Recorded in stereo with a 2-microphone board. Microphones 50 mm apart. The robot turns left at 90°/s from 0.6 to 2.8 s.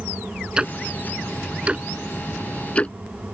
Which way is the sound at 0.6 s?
20° right (ahead or behind).